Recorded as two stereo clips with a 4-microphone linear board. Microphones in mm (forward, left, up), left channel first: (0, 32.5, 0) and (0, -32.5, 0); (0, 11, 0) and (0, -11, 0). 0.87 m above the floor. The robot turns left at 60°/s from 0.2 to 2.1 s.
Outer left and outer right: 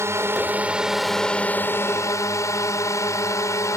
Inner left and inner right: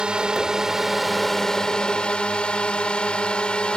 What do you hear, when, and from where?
0.0 s a drone: 130° right; by 3.8 s 115° left